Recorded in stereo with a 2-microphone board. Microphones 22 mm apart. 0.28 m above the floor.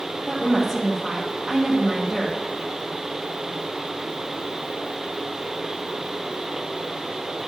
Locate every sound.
0.3 s a woman speaking: 5° right (ahead or behind), 1.3 m